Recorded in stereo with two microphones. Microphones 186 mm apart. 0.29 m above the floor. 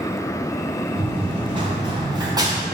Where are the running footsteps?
30° right (ahead or behind), 2.5 m; by 2.6 s 20° right (ahead or behind), 1.5 m.